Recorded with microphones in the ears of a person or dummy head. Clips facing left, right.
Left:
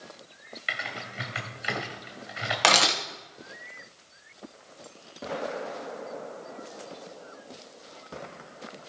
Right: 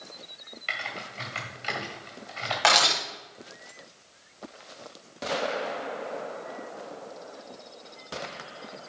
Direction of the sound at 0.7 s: 25° left (ahead or behind).